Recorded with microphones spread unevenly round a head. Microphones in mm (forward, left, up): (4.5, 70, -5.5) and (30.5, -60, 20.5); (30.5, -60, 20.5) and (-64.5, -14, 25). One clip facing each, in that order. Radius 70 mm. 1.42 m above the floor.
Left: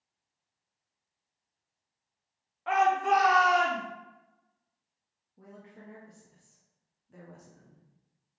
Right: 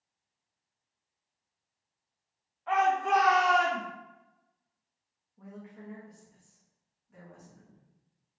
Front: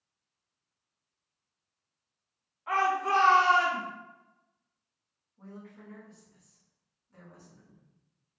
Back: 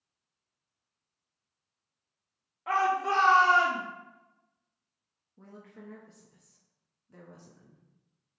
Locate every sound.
2.7 s a shout: 130° left, 1.2 m; by 3.8 s 150° left, 2 m
5.4 s a woman speaking: 155° left, 0.9 m